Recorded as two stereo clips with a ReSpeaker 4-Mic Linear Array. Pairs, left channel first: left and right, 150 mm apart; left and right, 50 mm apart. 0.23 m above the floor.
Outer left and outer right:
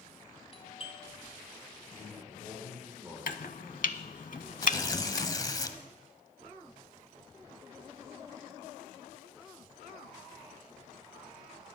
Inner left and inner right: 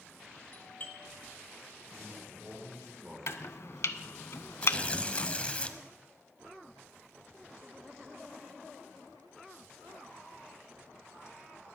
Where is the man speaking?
10° right (ahead or behind), 7 m.